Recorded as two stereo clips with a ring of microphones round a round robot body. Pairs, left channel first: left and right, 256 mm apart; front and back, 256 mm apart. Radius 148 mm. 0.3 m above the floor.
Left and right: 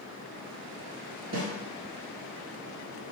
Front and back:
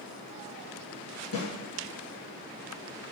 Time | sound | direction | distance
1.3 | a snare drum | 40° right | 1.5 m